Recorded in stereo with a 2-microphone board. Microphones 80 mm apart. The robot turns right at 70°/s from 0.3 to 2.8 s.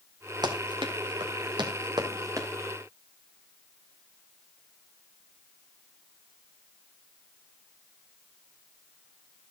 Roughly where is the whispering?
I don't hear whispering.